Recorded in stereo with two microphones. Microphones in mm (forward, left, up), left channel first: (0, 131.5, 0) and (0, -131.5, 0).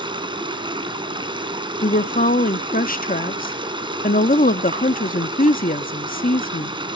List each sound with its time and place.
0.0 s running water: 20° right (ahead or behind), 2.5 m
1.8 s a woman speaking: 30° left (ahead or behind), 0.7 m